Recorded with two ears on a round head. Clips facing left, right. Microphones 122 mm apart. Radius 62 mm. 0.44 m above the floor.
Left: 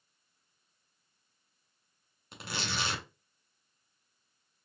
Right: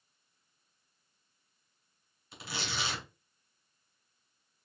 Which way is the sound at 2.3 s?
50° left (ahead or behind).